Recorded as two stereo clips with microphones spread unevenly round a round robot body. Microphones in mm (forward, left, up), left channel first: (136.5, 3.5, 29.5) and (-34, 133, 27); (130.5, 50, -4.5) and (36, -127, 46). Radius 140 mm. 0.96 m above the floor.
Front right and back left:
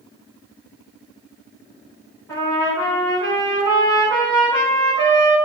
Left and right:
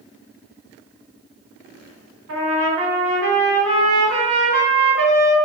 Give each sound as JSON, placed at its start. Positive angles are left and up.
{"t": 2.3, "sound": "a trumpet", "azimuth_deg": -120, "distance_m": 3.5}